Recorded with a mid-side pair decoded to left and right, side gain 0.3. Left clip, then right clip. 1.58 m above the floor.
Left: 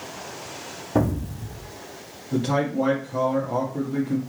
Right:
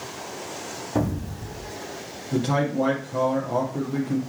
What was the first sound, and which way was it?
An explosion, 40° left.